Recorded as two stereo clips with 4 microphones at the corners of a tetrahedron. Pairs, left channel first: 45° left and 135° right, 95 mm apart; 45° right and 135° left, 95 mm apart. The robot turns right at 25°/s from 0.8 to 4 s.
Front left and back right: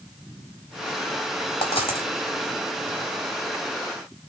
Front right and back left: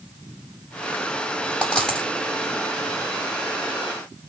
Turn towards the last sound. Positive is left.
turn(degrees=95)